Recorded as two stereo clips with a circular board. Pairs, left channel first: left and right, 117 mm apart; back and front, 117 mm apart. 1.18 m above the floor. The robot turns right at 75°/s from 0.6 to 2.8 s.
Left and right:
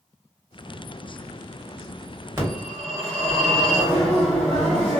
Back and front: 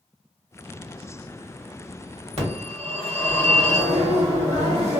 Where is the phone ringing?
25° right, 1.5 m; by 5.0 s 10° left, 1.5 m.